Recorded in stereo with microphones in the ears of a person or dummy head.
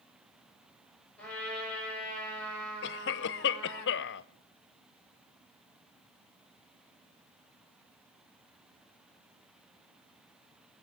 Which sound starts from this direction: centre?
A trumpet, at 1.2 s.